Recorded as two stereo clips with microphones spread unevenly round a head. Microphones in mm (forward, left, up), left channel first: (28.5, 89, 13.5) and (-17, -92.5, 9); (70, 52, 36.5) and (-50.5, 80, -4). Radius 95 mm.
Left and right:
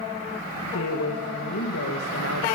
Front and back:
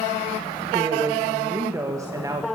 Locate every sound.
0.7 s a woman speaking: 95° left, 2.5 m